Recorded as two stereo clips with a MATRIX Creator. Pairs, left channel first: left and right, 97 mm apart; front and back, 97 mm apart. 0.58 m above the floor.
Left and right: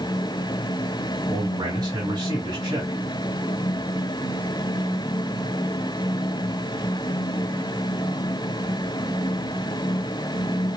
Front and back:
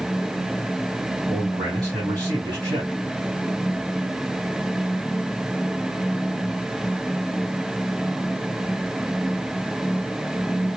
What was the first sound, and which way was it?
A man speaking, 130° right.